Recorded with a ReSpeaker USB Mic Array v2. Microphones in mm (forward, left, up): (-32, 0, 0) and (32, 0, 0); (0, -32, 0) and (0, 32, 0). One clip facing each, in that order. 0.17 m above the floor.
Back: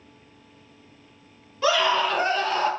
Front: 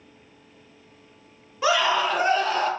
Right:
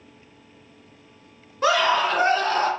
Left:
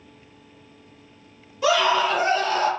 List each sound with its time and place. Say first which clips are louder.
1.6 s a scream: even, even; 70° right, 1.9 m; by 2.7 s 90° right, 1.6 m